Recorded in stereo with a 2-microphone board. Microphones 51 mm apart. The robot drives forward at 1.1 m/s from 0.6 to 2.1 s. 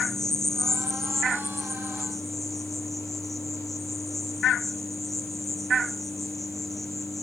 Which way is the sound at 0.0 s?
5° left (ahead or behind).